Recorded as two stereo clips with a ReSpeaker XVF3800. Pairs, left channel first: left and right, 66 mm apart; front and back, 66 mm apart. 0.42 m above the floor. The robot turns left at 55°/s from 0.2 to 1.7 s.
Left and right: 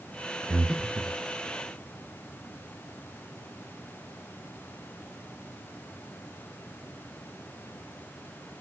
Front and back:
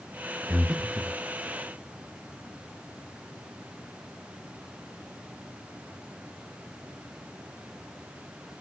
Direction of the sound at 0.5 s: 120° right.